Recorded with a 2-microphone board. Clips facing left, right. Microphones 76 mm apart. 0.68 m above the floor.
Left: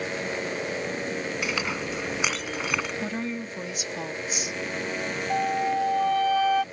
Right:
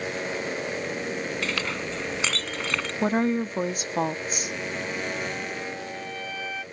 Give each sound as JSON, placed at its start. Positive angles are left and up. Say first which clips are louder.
{"t": 1.4, "sound": "a clink", "louder": "even", "side_deg": 10}
{"t": 3.0, "sound": "a woman speaking", "louder": "right 7 dB", "side_deg": -45}
{"t": 5.3, "sound": "a flute", "louder": "left 9 dB", "side_deg": 70}